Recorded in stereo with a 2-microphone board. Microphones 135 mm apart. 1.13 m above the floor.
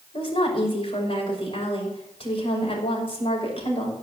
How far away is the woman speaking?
About 6 m.